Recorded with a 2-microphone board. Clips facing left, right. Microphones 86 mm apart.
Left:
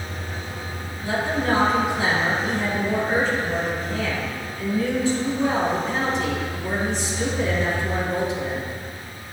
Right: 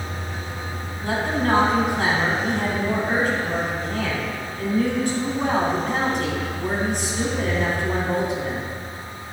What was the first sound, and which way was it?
A woman speaking, 55° right (ahead or behind).